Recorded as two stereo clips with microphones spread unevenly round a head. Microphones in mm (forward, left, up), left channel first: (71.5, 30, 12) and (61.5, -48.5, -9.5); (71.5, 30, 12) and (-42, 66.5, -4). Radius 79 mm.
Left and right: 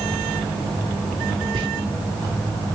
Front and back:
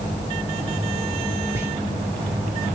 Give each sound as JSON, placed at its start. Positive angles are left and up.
{"t": 1.5, "sound": "whispering", "azimuth_deg": -125, "distance_m": 0.9}